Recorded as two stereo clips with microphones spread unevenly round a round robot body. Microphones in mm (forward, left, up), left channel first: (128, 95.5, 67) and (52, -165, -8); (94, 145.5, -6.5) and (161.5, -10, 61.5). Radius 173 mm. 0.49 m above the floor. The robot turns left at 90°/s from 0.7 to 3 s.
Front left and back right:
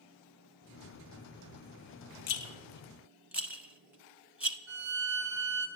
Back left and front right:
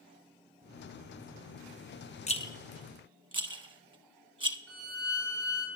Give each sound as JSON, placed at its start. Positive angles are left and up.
{"t": 2.3, "sound": "a rattle", "azimuth_deg": 50, "distance_m": 0.8}
{"t": 4.7, "sound": "a violin", "azimuth_deg": -120, "distance_m": 2.0}